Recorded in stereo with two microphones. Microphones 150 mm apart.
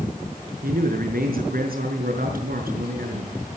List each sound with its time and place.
0.6 s a man speaking: 80° right, 5 m